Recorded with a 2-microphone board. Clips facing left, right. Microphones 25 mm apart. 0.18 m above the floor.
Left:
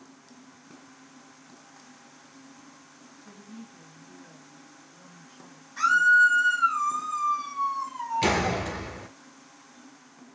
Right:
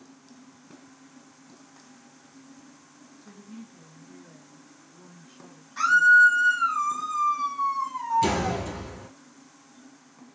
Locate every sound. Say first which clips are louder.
3.2 s a woman speaking: right 1 dB; 5° right (ahead or behind), 1.1 m; by 6.3 s 55° right (ahead or behind), 1.7 m
5.8 s a scream: right 2 dB; 20° right (ahead or behind), 1.5 m
8.2 s a door slam: left 1 dB; 35° left (ahead or behind), 1.0 m